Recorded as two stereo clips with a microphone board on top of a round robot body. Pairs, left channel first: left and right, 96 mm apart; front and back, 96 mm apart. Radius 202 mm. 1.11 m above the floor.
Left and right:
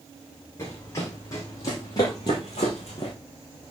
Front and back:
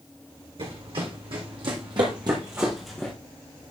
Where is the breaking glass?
No breaking glass in this recording.